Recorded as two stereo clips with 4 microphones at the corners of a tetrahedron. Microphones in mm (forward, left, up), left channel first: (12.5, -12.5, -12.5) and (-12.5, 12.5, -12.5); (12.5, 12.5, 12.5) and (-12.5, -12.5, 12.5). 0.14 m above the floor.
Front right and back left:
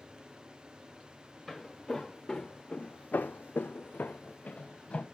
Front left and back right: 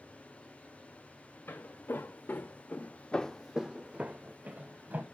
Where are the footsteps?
40° left, 1.3 m; by 5.0 s 100° right, 1.3 m.